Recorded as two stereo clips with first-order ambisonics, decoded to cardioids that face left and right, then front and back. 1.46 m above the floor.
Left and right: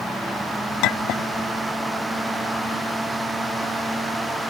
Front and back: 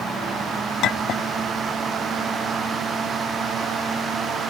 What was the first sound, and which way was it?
A clink, 55° left.